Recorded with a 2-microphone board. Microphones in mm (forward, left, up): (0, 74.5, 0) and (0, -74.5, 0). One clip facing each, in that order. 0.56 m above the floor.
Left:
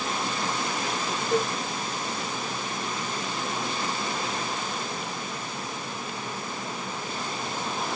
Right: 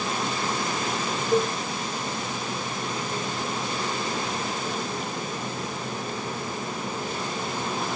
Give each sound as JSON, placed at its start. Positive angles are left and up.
{"t": 1.3, "sound": "a cowbell", "side_deg": 20, "distance_m": 5.0}